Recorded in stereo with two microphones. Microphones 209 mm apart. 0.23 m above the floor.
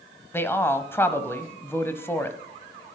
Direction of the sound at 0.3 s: 10° left (ahead or behind).